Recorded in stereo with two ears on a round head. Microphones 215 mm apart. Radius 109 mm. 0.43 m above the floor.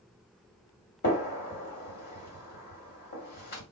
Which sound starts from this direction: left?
A gunshot, at 1.0 s.